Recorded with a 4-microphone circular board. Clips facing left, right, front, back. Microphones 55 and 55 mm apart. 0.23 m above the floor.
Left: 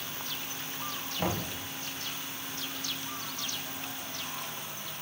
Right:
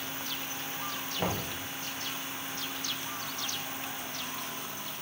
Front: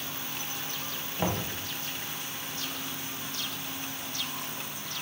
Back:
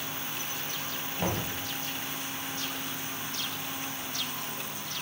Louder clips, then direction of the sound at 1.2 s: Left 1 dB, front 1 dB; 5° right.